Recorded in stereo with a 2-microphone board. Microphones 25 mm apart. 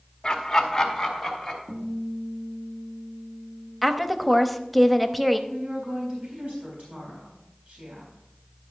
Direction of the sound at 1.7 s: 70° right (ahead or behind).